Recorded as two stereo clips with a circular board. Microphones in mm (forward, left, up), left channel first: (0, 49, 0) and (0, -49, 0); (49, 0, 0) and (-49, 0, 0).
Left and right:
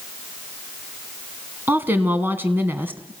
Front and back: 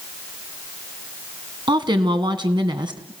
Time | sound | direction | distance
1.7 | a woman speaking | 155° right | 2.5 m